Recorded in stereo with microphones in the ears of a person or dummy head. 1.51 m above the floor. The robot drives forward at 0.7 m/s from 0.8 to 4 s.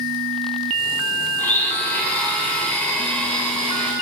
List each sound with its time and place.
1.4 s a blender: 15° left (ahead or behind), 2.5 m; by 3.9 s 10° left (ahead or behind), 4 m